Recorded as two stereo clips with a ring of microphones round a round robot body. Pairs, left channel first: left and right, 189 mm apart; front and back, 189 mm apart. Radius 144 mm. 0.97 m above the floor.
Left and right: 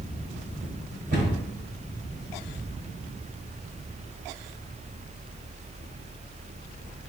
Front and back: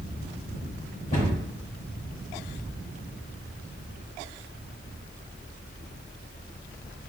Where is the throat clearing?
No throat clearing in this recording.